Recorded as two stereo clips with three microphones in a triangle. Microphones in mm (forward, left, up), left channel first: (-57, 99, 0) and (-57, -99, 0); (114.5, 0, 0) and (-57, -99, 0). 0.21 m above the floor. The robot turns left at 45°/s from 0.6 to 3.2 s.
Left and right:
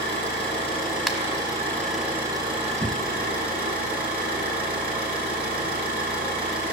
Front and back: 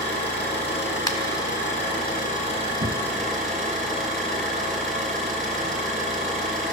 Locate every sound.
0.0 s an engine running: 60° left, 4 m; by 6.7 s 55° right, 4 m
1.1 s a finger snap: 5° right, 1.1 m; by 1.2 s 10° right, 1.1 m
2.8 s knocking: 145° right, 1.2 m; by 3.1 s 160° right, 1.2 m